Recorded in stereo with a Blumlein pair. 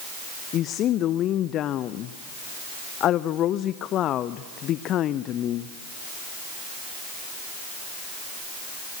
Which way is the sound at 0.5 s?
30° left.